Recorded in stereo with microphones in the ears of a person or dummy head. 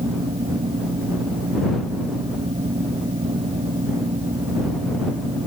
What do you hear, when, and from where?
0.0 s a fan: 30° right (ahead or behind)